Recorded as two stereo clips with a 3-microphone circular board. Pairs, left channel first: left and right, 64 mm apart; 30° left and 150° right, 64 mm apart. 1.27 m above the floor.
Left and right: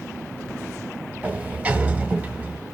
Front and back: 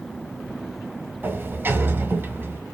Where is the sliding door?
135° right, 1.2 m.